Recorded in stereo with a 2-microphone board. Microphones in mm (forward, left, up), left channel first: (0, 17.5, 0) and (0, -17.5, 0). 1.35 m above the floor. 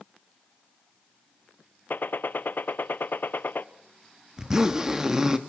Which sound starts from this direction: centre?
A zipper, at 4.4 s.